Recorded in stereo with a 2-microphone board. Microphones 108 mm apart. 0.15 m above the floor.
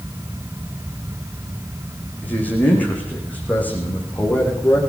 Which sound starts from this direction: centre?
A man speaking, at 2.2 s.